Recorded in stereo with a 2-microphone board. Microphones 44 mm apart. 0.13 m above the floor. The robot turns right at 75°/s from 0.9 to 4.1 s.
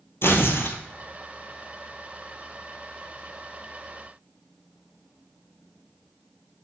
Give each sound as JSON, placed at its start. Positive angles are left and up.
{"t": 0.2, "sound": "tearing paper", "side_deg": 65, "distance_m": 1.1}